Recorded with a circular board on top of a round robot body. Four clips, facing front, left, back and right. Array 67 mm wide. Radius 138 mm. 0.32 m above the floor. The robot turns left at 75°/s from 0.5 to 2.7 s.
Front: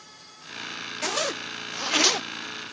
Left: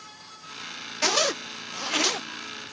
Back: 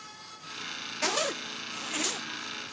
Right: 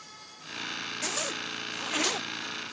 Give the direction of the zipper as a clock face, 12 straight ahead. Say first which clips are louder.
Left 11 dB, front 1 dB; 9 o'clock.